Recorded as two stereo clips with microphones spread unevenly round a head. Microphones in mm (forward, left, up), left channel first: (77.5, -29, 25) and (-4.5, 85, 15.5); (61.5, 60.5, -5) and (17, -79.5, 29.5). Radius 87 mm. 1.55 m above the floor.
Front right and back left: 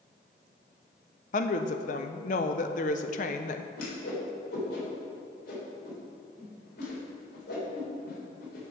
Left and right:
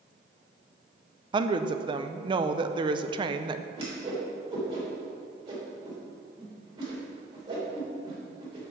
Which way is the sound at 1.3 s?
70° right.